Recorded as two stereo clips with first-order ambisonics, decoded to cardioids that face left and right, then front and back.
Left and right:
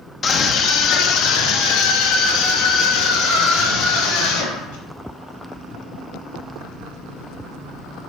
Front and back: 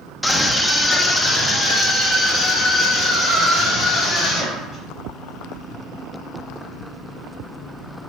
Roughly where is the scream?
Left.